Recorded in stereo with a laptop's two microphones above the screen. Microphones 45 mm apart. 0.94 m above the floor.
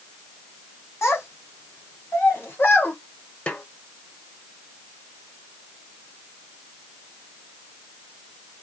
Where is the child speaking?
80° left, 2.5 m; by 3.0 s 50° left (ahead or behind), 1.9 m.